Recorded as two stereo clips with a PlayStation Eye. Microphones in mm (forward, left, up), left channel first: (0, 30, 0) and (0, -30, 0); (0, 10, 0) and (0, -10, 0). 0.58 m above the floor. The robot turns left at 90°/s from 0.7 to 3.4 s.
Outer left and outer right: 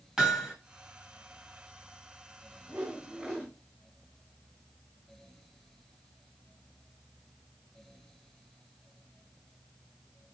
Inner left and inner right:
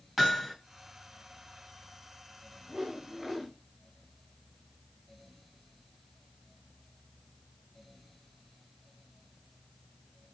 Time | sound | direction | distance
0.2 | hammering | 10° right (ahead or behind) | 1.3 m
2.7 | a whoosh | 140° right | 2 m